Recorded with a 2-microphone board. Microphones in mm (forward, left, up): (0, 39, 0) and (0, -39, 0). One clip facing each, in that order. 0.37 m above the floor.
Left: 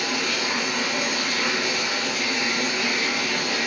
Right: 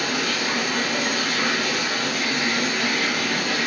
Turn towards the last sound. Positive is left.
turn(degrees=-55)  # may be behind; listen again after turning